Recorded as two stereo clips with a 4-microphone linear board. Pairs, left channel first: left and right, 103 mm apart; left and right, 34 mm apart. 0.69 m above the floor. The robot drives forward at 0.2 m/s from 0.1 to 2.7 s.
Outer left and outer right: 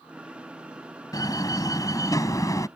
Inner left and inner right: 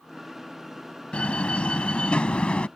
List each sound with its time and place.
1.1 s a door slam: 35° left (ahead or behind); by 2.7 s 30° left (ahead or behind)